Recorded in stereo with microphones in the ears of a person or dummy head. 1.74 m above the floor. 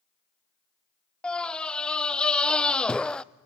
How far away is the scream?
About 0.5 m.